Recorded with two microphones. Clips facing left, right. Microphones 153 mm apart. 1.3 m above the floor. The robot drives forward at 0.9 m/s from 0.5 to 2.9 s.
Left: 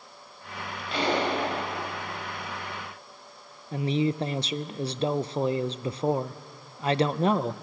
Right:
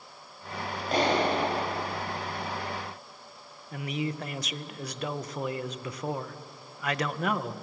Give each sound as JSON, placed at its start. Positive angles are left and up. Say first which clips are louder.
{"t": 0.9, "sound": "a clap", "louder": "right 1 dB", "side_deg": -45, "distance_m": 6.0}
{"t": 3.7, "sound": "a man speaking", "louder": "left 7 dB", "side_deg": 30, "distance_m": 0.5}